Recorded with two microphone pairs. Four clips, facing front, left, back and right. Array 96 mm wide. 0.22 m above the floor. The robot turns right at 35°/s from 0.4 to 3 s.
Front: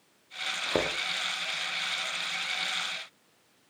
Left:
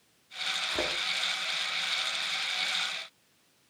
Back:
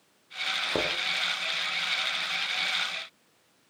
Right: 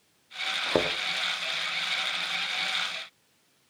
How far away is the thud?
About 3.5 m.